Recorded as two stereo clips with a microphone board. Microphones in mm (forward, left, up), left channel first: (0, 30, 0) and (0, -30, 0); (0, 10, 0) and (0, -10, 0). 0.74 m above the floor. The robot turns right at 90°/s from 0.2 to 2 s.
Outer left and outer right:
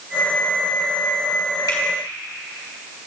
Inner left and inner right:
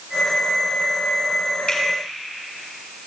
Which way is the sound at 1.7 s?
75° left (ahead or behind).